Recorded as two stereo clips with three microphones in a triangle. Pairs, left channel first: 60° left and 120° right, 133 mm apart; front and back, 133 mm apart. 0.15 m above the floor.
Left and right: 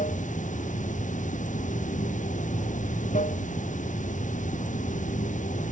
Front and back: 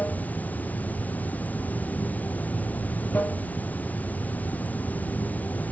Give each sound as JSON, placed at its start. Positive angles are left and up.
{"t": 0.0, "sound": "running water", "azimuth_deg": 80}